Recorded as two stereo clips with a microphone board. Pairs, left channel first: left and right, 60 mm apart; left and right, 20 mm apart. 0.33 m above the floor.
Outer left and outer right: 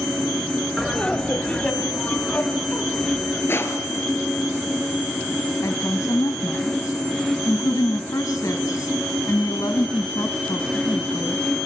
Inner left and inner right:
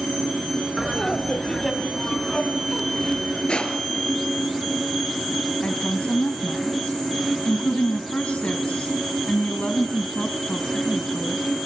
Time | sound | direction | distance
0.8 | laughter | 5° left (ahead or behind) | 1.2 m
3.5 | crushing | 40° left (ahead or behind) | 3.5 m
5.6 | a woman speaking | 65° left (ahead or behind) | 2 m